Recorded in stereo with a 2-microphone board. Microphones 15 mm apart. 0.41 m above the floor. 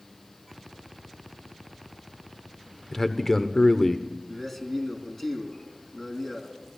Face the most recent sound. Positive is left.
turn(degrees=25)  # may be behind; listen again after turning